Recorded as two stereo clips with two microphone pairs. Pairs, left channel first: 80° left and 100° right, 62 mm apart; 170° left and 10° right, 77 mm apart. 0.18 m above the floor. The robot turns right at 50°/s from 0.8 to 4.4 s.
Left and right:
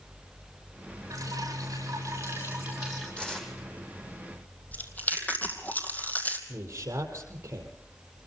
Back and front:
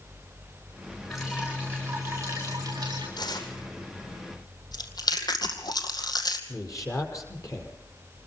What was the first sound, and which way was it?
Dripping, 105° right.